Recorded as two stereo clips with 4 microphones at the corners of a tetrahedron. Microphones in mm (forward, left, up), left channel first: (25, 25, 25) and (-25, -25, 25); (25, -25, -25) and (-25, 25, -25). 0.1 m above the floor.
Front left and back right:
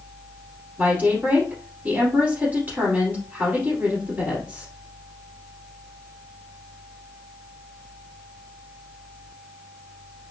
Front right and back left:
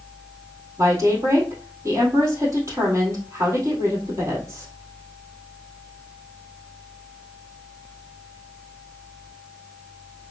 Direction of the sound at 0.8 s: 170° left.